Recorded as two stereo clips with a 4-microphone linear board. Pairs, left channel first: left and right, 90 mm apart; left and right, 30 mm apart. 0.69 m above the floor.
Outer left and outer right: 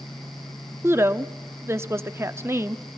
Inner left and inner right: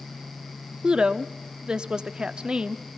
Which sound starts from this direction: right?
A woman speaking, at 0.8 s.